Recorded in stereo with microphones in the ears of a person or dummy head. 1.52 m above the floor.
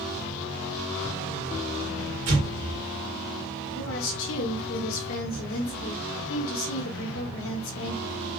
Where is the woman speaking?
75° left (ahead or behind), 1.2 m.